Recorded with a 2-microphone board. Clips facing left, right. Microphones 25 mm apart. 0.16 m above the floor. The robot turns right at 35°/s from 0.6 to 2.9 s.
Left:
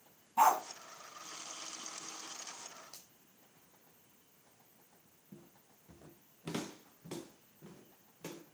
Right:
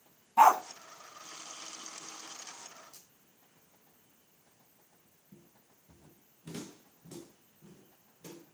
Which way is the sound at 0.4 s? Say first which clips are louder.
Right 6 dB; 40° right (ahead or behind).